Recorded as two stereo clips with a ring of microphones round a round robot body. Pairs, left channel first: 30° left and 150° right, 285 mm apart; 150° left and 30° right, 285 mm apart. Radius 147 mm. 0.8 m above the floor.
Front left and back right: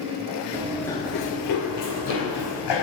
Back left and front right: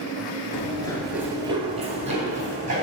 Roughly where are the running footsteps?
Behind.